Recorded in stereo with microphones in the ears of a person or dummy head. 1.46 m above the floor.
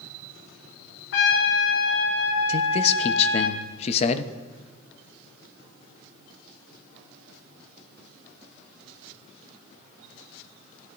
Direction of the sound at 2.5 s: 40° left (ahead or behind).